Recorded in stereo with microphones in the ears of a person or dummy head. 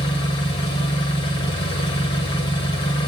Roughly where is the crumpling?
No crumpling in this recording.